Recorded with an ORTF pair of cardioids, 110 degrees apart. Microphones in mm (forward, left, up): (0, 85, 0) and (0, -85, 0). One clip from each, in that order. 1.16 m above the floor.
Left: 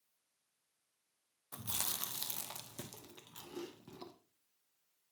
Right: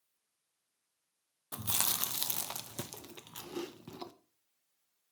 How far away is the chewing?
About 0.7 m.